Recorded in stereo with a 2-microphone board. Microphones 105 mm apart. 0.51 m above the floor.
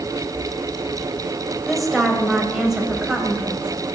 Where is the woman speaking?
Centre (ahead or behind), 2.5 m; by 3.9 s 10° right (ahead or behind), 3.5 m.